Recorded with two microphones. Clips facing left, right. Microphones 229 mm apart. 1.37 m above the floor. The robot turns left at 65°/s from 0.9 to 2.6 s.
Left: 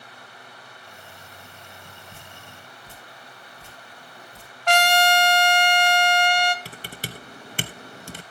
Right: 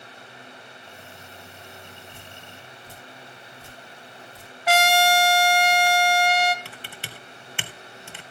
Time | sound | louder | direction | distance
2.1 | dripping | right 1 dB | 50° left (ahead or behind) | 4.5 m
4.7 | a trumpet | even | 5° right (ahead or behind) | 0.9 m
6.7 | typing on a keyboard | left 4 dB | 40° left (ahead or behind) | 0.7 m